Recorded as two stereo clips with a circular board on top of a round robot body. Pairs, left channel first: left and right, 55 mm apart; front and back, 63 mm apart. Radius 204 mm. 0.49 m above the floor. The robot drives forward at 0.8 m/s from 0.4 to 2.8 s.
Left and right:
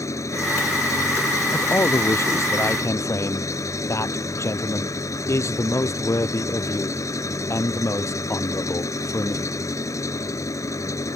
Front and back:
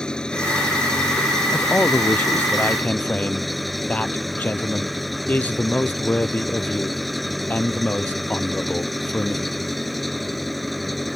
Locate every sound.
0.0 s an engine running: 80° left; by 11.2 s 90° left
1.5 s a man speaking: 60° left; by 9.5 s 65° left